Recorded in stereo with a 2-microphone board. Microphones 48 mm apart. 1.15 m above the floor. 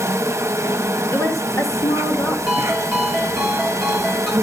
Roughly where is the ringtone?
Centre.